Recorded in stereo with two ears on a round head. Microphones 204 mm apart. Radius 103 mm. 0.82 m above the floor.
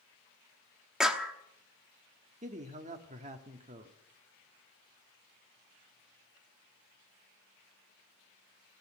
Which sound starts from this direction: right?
A man speaking, at 2.4 s.